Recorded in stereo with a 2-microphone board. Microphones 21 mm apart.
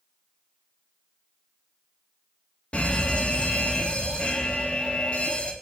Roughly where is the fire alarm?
Left.